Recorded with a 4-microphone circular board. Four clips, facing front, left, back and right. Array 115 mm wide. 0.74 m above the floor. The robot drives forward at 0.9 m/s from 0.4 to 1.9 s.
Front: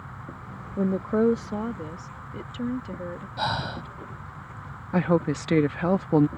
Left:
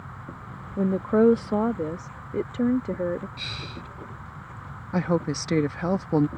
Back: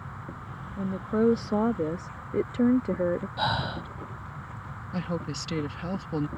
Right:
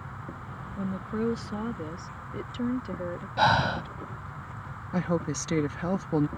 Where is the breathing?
85° right.